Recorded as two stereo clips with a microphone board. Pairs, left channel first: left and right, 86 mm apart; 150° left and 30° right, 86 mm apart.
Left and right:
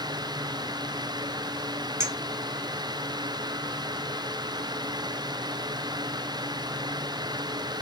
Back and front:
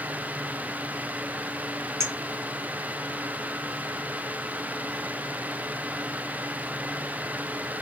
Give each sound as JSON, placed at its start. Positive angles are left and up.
{"t": 2.0, "sound": "a clink", "azimuth_deg": -60, "distance_m": 0.5}